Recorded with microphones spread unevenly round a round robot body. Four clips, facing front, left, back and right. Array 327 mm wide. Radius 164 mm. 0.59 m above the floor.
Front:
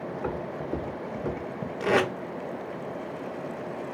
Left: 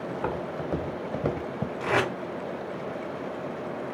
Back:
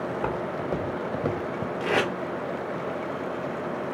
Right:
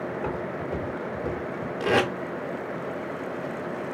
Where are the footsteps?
175° left, 2 m; by 1.7 s 105° left, 0.9 m.